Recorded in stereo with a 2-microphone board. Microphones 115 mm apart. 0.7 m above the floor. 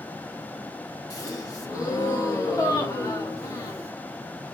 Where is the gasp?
30° left (ahead or behind), 1.0 m.